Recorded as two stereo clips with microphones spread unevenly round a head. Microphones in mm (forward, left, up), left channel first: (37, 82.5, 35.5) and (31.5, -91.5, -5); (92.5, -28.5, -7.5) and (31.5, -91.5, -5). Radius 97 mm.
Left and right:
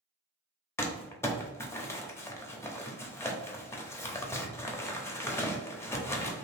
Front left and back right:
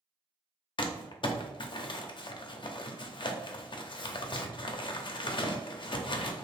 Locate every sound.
0.8 s crumpling: 15° left, 0.6 m